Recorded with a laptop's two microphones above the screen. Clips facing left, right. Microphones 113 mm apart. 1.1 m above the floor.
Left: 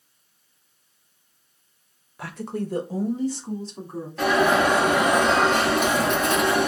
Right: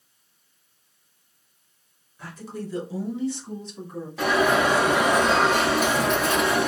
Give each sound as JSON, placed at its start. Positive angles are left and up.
{"t": 2.2, "sound": "a woman speaking", "side_deg": 75, "distance_m": 0.6}
{"t": 4.2, "sound": "an alarm", "side_deg": -5, "distance_m": 2.0}